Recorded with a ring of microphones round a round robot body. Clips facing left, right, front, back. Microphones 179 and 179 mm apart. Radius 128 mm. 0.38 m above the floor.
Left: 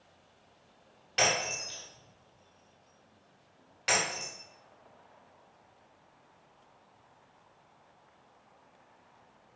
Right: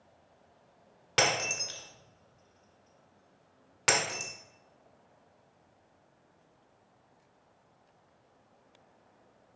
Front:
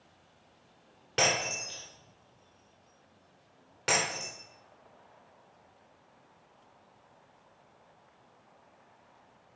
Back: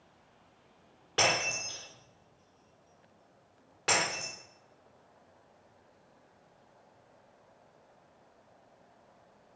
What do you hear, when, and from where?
1.2 s breaking glass: 75° right, 1.3 m